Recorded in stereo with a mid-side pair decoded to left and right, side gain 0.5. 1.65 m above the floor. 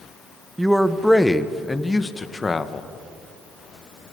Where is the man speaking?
10° right, 1.4 m; by 2.9 s 30° left, 1.9 m.